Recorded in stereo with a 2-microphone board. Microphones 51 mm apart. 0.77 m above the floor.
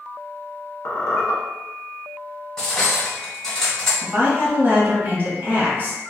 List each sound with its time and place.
0.8 s a squeak: 75° left (ahead or behind), 0.6 m
2.6 s cutlery clinking: 15° left (ahead or behind), 1.4 m
4.0 s a woman speaking: 40° right (ahead or behind), 1.1 m